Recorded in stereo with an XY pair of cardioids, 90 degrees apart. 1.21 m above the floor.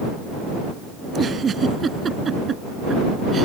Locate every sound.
1.0 s a giggle: 50° right